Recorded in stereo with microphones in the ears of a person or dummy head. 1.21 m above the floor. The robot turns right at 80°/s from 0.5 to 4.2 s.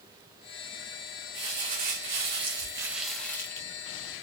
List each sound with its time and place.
1.3 s crumpling: 140° right, 0.6 m; by 3.7 s 50° left, 0.6 m